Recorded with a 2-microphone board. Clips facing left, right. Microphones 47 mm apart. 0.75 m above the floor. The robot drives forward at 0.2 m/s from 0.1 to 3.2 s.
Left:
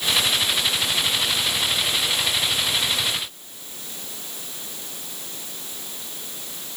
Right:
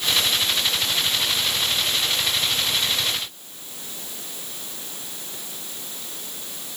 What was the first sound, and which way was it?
Only background noise.